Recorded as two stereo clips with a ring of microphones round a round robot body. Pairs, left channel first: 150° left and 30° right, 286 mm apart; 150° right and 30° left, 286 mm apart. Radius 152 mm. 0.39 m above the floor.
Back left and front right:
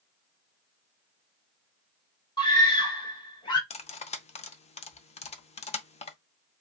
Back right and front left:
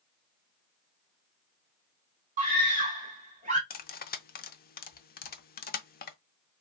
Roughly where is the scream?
Left.